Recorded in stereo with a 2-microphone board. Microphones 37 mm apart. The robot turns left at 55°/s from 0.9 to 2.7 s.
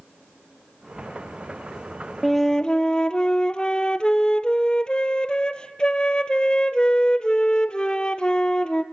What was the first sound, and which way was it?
A flute, centre (ahead or behind).